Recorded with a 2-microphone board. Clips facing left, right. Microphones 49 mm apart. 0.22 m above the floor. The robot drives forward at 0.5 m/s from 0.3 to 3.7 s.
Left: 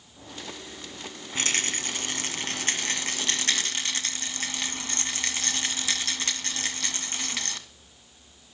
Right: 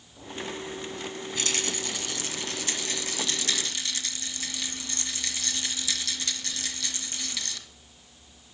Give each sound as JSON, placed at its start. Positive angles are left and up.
{"t": 1.4, "sound": "a rattle", "side_deg": 40, "distance_m": 1.8}